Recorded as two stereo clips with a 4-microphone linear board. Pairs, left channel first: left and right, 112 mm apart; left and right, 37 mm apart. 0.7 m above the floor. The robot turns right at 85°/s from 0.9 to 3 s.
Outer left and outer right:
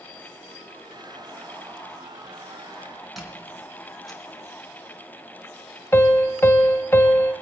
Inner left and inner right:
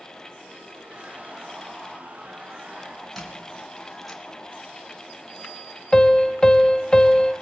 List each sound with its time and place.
3.2 s a squeak: centre (ahead or behind), 2.5 m
5.9 s a piano: 20° left (ahead or behind), 0.7 m